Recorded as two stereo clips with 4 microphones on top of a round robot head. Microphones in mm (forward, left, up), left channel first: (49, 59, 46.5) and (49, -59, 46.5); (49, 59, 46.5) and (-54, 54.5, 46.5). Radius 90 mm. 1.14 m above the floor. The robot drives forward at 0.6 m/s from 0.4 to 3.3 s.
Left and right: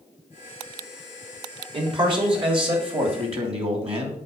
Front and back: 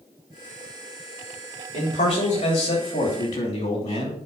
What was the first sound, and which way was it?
A man speaking, 45° right.